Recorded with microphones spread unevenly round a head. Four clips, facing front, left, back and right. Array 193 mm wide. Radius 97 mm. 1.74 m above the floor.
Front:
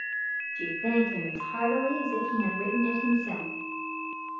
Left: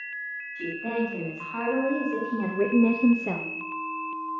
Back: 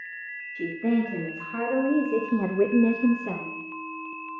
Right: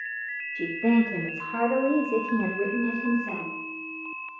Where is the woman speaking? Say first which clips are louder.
Right 7 dB, back 2 dB; 130° right, 3 m; by 3.5 s 85° left, 1.1 m.